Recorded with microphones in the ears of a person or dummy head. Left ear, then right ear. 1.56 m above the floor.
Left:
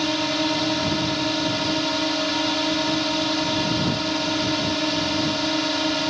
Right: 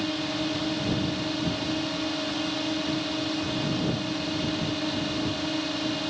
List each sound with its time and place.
0.0 s a drone: 60° left (ahead or behind)